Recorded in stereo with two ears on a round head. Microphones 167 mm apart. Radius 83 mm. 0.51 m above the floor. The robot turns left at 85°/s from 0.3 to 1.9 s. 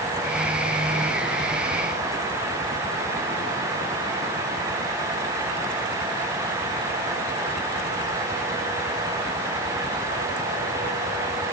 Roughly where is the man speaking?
I don't hear a man speaking.